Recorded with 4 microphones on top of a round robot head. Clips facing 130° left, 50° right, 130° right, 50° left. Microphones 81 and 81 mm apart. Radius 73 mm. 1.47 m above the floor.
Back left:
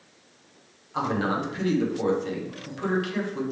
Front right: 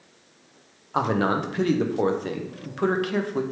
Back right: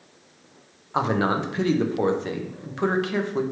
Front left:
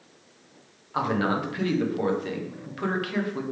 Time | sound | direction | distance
0.9 | a man speaking | 70° right | 0.7 m